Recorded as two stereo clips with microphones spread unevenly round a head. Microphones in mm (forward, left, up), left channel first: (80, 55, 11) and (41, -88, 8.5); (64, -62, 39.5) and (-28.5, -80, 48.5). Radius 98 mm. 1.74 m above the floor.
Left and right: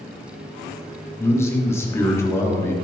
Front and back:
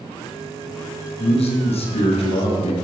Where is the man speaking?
Straight ahead, 3.5 m.